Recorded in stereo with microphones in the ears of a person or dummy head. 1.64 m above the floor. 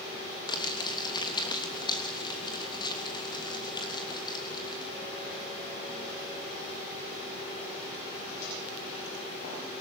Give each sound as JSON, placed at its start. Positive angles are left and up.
{"t": 0.5, "sound": "crumpling", "side_deg": 15, "distance_m": 3.0}